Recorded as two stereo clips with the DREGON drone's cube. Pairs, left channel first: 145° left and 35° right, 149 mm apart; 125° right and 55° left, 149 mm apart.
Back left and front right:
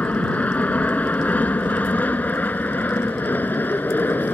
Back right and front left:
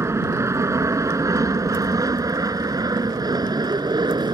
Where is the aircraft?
85° left; by 4.3 s 80° left.